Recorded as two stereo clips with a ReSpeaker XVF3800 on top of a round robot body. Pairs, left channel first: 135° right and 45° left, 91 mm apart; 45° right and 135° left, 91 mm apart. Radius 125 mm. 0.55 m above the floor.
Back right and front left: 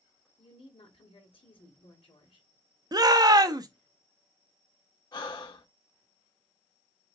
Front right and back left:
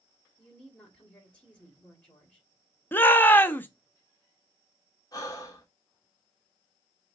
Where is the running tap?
I don't hear a running tap.